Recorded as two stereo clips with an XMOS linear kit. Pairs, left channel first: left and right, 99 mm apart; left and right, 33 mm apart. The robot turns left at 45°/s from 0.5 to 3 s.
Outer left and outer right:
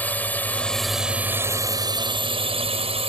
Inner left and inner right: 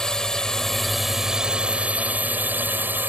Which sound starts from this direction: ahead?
A drone, at 0.0 s.